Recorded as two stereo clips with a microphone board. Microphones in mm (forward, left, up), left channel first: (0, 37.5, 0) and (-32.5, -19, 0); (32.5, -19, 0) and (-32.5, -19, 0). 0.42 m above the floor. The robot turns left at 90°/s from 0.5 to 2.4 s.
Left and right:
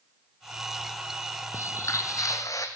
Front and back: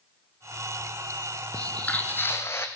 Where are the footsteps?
60° left, 0.6 m; by 2.7 s 45° left, 1.1 m.